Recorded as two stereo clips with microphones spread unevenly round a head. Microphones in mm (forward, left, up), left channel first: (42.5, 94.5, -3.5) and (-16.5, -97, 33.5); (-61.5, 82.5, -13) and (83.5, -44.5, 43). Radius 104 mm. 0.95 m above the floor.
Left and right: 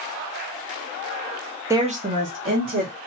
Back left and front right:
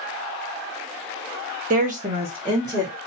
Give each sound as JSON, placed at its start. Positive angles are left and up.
{"t": 1.7, "sound": "a woman speaking", "azimuth_deg": -25, "distance_m": 0.6}